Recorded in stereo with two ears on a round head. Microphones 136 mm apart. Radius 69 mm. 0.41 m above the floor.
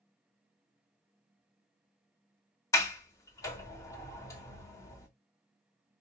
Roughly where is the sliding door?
Centre.